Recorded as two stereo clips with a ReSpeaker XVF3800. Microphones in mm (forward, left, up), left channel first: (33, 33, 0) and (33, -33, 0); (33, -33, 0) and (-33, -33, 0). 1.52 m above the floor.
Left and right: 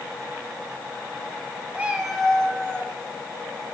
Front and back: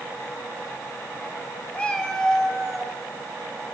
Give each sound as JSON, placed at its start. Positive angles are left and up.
{"t": 1.7, "sound": "a cat meowing", "azimuth_deg": -50, "distance_m": 1.4}